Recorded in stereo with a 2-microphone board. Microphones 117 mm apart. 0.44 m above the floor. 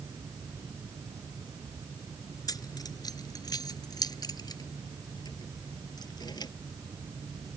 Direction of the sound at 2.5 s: 35° left (ahead or behind).